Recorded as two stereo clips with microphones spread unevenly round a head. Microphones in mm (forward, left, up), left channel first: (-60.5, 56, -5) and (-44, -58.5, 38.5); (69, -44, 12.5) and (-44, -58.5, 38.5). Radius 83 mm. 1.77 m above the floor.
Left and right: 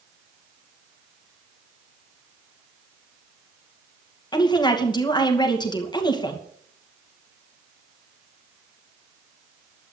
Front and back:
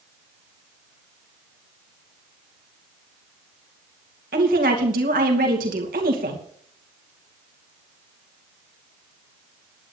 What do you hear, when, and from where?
4.3 s a woman speaking: 155° left, 2.5 m